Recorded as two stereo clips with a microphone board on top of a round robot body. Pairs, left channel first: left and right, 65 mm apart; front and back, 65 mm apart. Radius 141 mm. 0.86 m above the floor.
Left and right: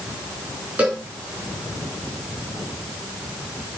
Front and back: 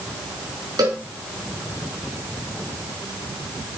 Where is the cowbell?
160° right, 4.5 m.